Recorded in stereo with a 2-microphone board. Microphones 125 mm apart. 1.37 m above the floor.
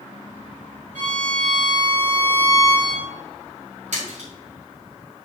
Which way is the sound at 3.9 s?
70° right (ahead or behind).